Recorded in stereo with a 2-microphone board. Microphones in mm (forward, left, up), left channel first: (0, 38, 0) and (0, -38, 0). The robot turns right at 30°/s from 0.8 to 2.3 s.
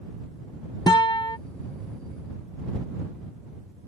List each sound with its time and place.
0.9 s a guitar: 65° left (ahead or behind); by 1.4 s 80° left